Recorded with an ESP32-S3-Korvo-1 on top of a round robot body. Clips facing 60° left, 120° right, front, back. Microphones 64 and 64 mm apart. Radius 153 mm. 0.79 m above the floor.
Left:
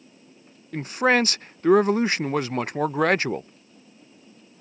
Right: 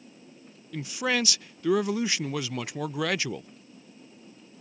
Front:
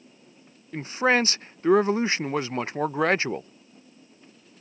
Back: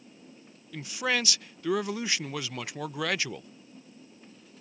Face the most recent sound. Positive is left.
turn(degrees=40)